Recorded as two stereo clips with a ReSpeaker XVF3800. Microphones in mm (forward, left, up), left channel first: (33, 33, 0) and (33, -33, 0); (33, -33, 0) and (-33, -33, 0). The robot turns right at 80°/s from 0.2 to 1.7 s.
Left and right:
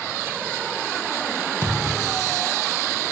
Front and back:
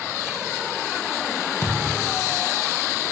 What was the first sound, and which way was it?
A thud, 45° right.